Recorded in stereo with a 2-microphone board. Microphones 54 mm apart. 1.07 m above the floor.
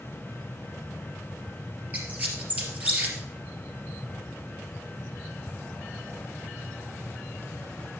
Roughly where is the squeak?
Right.